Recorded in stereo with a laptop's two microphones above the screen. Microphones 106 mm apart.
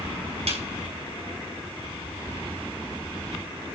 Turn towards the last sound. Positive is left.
turn(degrees=-75)  # may be behind; listen again after turning